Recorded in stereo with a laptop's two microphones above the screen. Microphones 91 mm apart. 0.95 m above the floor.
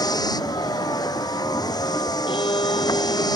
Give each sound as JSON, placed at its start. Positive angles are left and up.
{"t": 0.0, "sound": "a vehicle", "side_deg": 45}
{"t": 2.3, "sound": "a violin", "side_deg": 70}